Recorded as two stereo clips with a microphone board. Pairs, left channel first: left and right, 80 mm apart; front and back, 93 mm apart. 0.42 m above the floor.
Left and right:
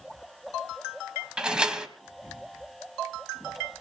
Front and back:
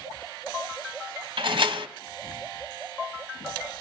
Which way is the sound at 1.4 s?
170° right.